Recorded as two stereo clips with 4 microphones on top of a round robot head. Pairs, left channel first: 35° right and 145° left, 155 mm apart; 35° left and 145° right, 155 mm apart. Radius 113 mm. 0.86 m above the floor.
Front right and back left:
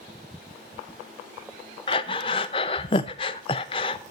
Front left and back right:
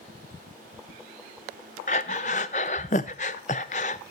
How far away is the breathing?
About 0.5 m.